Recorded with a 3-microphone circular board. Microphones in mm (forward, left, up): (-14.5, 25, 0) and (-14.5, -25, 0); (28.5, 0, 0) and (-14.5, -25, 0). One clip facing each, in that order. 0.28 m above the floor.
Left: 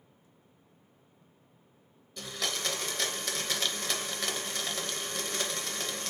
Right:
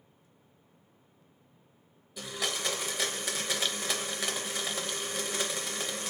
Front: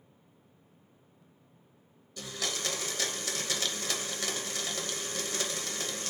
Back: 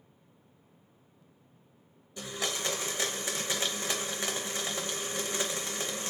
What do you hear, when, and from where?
2.2 s a blender: 160° right, 0.8 m